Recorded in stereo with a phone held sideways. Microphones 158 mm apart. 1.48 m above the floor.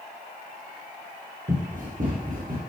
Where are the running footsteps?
55° right (ahead or behind), 2.5 m; by 2.6 s 60° right (ahead or behind), 3 m.